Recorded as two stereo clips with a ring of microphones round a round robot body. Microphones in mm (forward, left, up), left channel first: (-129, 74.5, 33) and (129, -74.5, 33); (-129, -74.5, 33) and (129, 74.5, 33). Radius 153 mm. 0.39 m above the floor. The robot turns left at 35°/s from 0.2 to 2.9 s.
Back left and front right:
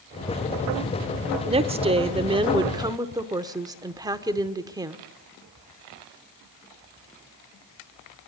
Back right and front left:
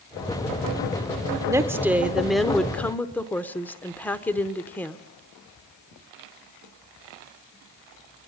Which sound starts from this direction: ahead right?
A woman speaking, at 1.5 s.